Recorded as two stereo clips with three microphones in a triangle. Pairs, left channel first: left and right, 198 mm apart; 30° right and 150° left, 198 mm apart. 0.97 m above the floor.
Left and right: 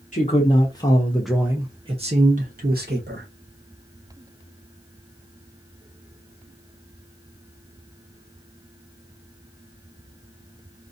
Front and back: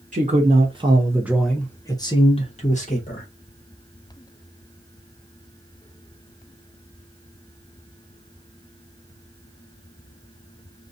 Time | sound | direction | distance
0.1 | a man speaking | 125° left | 1.0 m